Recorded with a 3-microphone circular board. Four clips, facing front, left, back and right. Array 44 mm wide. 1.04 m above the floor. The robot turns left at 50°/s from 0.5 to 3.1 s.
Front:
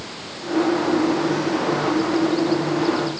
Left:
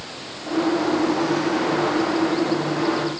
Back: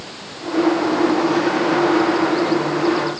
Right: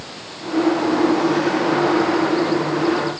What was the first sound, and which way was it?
Only background noise.